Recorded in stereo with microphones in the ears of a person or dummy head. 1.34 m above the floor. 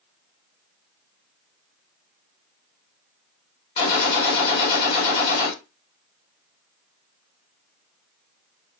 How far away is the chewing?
No chewing in this recording.